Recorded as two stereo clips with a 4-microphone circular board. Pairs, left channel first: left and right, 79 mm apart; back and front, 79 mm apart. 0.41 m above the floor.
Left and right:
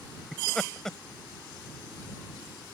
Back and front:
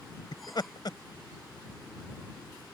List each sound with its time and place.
0.3 s laughter: 175° left